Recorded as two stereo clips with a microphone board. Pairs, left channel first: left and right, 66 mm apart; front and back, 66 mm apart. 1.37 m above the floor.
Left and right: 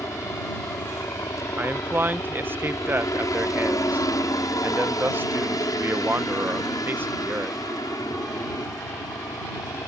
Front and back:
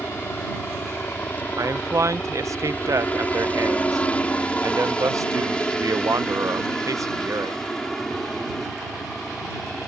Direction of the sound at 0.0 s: 60° left.